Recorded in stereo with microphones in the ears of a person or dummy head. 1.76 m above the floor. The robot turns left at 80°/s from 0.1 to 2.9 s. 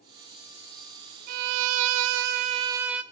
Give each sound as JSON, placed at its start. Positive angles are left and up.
{"t": 1.3, "sound": "a violin", "azimuth_deg": -40, "distance_m": 0.5}